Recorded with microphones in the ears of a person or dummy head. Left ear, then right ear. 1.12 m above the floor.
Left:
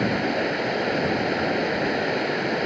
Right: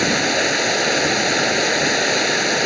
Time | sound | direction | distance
0.0 | running water | 85° right | ?